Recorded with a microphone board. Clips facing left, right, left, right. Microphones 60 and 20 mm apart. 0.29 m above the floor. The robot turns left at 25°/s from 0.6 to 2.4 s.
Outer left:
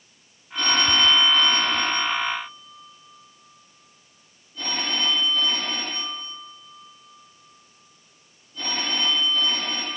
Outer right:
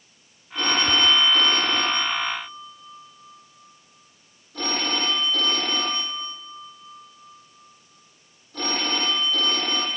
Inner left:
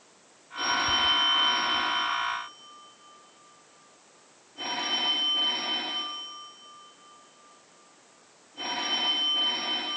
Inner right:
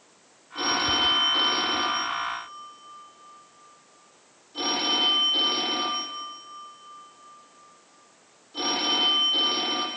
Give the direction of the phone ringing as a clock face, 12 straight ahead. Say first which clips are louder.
Even, inner right 2 dB; 1 o'clock.